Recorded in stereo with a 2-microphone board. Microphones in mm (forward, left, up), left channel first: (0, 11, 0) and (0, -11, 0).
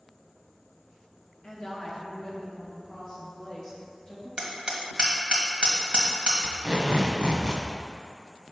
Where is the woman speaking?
40° left (ahead or behind), 1.7 m; by 4.3 s 30° left (ahead or behind), 4 m.